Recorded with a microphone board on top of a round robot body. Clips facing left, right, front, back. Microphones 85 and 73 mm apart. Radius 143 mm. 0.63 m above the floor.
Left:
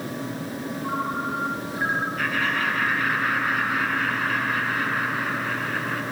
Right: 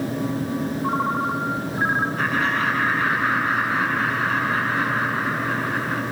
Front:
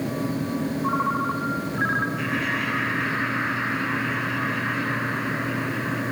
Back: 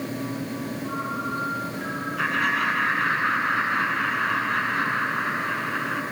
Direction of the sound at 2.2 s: 145° right.